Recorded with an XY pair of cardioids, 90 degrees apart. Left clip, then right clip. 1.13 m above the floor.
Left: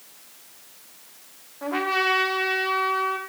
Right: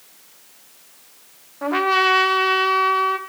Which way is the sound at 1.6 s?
50° right.